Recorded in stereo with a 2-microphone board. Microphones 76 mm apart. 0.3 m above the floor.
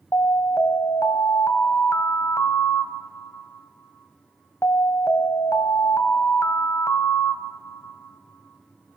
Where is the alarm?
40° left (ahead or behind), 2 m.